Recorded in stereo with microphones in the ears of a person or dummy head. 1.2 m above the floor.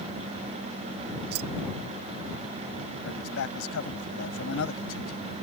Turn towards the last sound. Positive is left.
turn(degrees=80)